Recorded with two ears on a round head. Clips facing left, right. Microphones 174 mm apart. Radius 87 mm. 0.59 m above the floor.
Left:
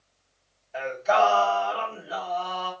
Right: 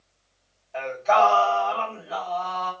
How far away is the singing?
About 1.9 m.